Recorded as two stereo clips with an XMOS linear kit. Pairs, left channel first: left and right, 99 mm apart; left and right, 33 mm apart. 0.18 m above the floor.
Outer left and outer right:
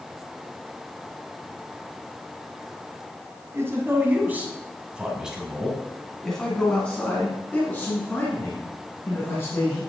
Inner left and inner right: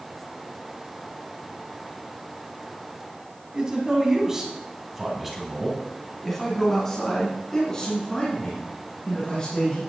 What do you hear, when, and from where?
3.5 s a man speaking: 25° right (ahead or behind), 1.8 m; by 9.8 s 25° left (ahead or behind), 3.5 m